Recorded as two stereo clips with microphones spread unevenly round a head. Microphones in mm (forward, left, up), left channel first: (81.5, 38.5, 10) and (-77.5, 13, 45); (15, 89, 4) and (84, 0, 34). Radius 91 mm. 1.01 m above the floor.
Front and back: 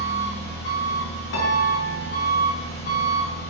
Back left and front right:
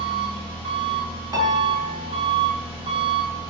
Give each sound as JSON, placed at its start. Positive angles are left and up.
{"t": 0.0, "sound": "an engine running", "azimuth_deg": -5, "distance_m": 1.2}
{"t": 1.3, "sound": "a piano", "azimuth_deg": 10, "distance_m": 0.7}